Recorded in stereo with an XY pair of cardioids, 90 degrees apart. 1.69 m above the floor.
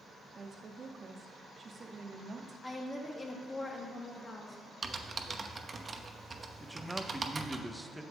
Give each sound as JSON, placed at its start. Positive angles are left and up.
{"t": 0.3, "sound": "a woman speaking", "azimuth_deg": -40, "distance_m": 0.9}
{"t": 2.6, "sound": "a woman speaking", "azimuth_deg": 35, "distance_m": 2.0}
{"t": 4.8, "sound": "typing on a keyboard", "azimuth_deg": -35, "distance_m": 0.8}
{"t": 6.6, "sound": "a man speaking", "azimuth_deg": 0, "distance_m": 0.8}